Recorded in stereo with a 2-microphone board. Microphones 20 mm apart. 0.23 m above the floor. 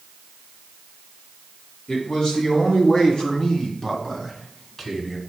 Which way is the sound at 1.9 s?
50° left (ahead or behind).